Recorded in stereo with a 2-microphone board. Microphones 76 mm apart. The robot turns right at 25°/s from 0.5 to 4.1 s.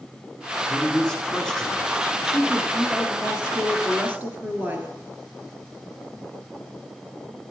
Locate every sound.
0.7 s a man speaking: 145° left, 1.8 m; by 2.0 s 175° left, 1.8 m
2.2 s a woman speaking: 170° left, 2.0 m; by 4.9 s 145° right, 2.0 m